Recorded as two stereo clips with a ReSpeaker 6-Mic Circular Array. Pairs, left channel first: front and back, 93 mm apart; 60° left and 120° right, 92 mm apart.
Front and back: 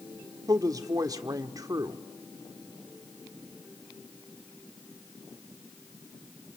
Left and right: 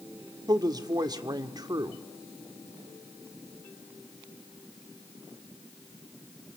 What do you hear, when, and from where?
0.5 s a woman speaking: 145° right, 1.4 m